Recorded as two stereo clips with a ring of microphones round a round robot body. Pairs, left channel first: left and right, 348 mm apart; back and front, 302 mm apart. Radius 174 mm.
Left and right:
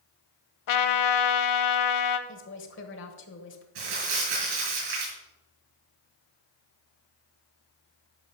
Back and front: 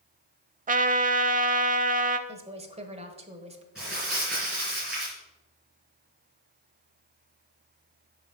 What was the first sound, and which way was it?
A trumpet, 60° left.